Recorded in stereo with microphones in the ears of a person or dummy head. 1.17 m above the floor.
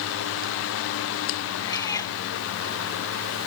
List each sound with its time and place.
1.6 s a cat meowing: 20° left (ahead or behind)